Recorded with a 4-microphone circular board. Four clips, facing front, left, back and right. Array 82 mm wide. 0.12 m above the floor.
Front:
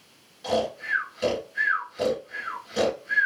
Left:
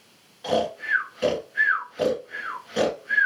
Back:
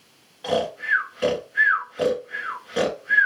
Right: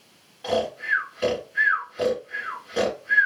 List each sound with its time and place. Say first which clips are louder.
0.4 s snoring: even, back 3 dB; straight behind, 1.6 m